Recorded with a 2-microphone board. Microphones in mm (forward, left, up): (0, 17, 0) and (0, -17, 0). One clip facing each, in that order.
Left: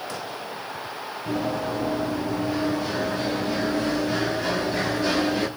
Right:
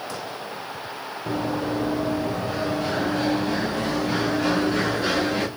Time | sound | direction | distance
1.3 | running footsteps | 25° right (ahead or behind) | 5 m